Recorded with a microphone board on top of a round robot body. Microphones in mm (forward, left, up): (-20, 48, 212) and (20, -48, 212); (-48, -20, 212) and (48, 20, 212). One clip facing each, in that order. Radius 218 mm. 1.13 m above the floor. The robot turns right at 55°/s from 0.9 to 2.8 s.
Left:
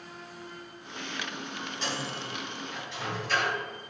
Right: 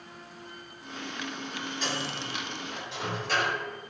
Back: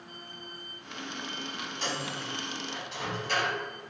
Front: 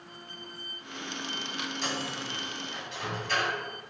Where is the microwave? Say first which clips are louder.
Even, back 2 dB; 155° right, 1.8 m; by 3.6 s 100° right, 1.8 m.